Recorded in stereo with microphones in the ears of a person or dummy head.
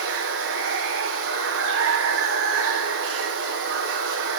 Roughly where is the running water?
Right.